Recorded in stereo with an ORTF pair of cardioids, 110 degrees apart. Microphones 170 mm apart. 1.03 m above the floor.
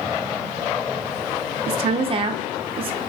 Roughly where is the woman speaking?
Ahead right.